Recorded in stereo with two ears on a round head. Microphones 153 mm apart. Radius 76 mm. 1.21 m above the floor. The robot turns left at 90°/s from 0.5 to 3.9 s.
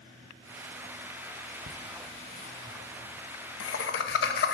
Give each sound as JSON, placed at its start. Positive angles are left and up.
{"t": 1.7, "sound": "laughter", "side_deg": -85, "distance_m": 1.2}